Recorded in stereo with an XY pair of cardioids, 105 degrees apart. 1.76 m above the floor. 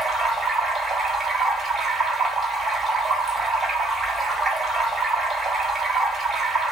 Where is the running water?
25° right, 1.3 m.